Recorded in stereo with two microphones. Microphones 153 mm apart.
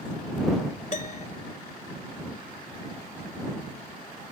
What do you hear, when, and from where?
0.9 s a piano: 50° left (ahead or behind)